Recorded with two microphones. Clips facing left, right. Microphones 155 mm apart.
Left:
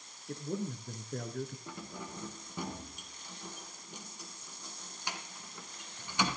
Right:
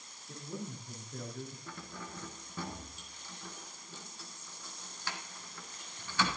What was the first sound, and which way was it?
A man speaking, 60° left (ahead or behind).